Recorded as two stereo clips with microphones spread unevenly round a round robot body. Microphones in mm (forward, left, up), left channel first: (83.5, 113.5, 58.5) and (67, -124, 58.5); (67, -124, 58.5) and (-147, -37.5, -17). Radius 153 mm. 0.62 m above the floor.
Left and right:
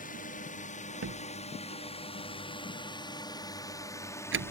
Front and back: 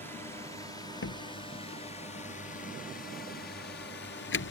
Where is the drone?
80° left; by 4.5 s 15° left.